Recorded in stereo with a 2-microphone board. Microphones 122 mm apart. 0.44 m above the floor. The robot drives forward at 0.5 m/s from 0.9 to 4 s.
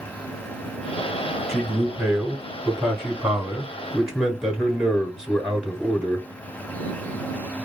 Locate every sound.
1.5 s a man speaking: centre (ahead or behind), 1.8 m; by 6.3 s 5° right (ahead or behind), 0.8 m